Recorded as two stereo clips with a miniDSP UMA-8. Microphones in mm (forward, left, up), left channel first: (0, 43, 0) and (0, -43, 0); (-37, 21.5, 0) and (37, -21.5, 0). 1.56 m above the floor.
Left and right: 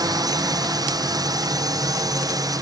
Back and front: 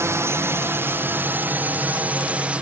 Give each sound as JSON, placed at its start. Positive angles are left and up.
{"t": 0.0, "sound": "a drone", "azimuth_deg": -80}